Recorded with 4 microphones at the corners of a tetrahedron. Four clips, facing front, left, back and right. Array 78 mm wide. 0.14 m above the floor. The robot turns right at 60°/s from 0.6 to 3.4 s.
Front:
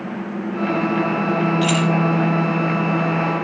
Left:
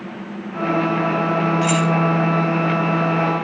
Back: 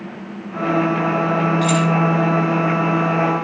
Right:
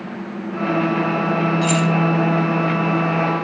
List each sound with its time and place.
1.6 s keys jangling: 30° right, 3.5 m; by 1.9 s 15° right, 3.5 m